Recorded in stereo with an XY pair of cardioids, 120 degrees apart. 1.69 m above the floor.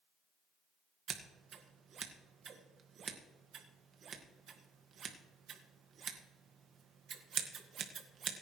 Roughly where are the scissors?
Ahead right.